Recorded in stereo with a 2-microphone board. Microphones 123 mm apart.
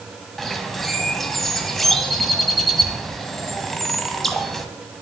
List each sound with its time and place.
0.4 s a bird: centre (ahead or behind), 1.2 m